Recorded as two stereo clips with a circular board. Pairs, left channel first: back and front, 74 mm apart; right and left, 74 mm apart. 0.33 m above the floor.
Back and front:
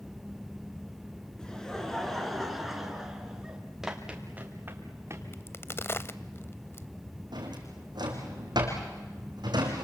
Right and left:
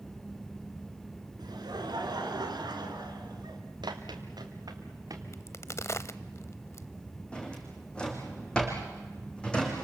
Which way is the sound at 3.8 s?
85° left.